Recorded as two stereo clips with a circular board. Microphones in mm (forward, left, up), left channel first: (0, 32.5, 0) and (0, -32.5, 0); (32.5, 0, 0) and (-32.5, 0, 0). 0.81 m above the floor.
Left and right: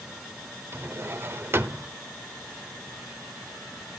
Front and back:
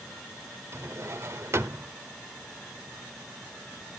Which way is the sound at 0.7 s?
140° right.